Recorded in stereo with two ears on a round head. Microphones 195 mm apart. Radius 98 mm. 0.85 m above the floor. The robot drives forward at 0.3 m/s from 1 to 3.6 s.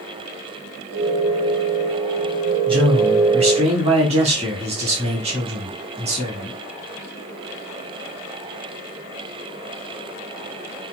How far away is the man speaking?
About 1.7 m.